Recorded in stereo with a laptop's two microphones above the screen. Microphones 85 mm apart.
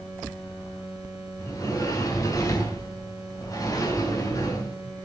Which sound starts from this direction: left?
A sliding door, at 1.4 s.